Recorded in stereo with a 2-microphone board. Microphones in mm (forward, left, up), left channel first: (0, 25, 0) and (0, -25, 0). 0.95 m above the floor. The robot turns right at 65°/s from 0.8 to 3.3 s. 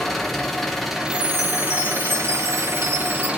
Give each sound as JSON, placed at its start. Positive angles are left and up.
{"t": 0.0, "sound": "an engine running", "azimuth_deg": 175, "distance_m": 0.9}
{"t": 1.1, "sound": "a chime", "azimuth_deg": 155, "distance_m": 1.2}